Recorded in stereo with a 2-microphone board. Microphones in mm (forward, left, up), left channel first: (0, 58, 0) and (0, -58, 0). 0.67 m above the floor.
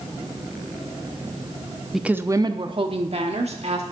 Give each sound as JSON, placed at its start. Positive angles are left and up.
{"t": 1.9, "sound": "a woman speaking", "side_deg": 0, "distance_m": 0.6}